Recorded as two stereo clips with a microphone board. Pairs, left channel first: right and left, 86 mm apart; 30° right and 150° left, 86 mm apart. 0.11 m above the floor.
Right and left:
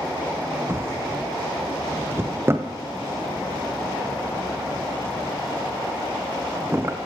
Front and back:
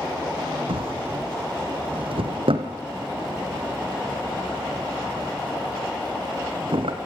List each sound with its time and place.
0.7 s a drawer: 155° left, 2.5 m